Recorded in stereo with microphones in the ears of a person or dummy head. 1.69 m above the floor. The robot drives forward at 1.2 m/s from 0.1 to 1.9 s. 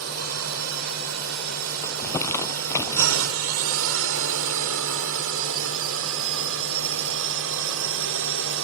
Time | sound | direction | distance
0.0 | a drone | 75° right (ahead or behind) | ?
1.8 | crumpling | 20° left (ahead or behind) | ?